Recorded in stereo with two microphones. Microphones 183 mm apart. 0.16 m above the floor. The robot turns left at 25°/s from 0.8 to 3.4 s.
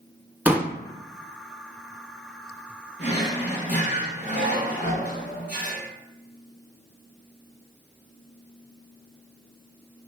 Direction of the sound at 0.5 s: 10° right (ahead or behind).